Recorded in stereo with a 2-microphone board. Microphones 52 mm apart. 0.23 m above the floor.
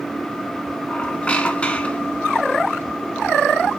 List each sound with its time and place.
0.9 s a squeak: 20° left (ahead or behind), 0.9 m